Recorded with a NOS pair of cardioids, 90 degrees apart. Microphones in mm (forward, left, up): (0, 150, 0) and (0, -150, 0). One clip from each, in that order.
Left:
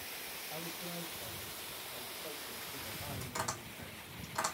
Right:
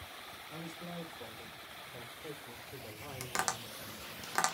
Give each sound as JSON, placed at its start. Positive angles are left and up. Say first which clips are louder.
{"t": 0.5, "sound": "a man speaking", "louder": "left 1 dB", "azimuth_deg": -45, "distance_m": 2.5}
{"t": 3.2, "sound": "tapping", "louder": "right 6 dB", "azimuth_deg": -70, "distance_m": 1.2}